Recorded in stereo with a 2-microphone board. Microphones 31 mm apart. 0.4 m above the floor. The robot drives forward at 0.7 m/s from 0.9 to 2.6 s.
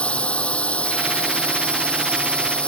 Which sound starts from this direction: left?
A drone, at 0.0 s.